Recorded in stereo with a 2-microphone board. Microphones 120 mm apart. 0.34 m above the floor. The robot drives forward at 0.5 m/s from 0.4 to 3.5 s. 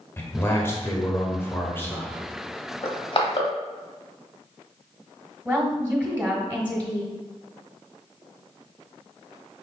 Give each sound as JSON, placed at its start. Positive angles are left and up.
{"t": 0.2, "sound": "a man speaking", "side_deg": 20, "distance_m": 0.9}
{"t": 2.8, "sound": "crushing", "side_deg": 50, "distance_m": 1.0}
{"t": 5.5, "sound": "a woman speaking", "side_deg": -10, "distance_m": 1.4}